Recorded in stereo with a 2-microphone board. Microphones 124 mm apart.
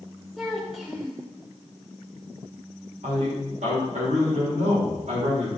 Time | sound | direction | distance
0.4 | a child speaking | centre (ahead or behind) | 3 m
3.0 | a man speaking | 85° right | 4 m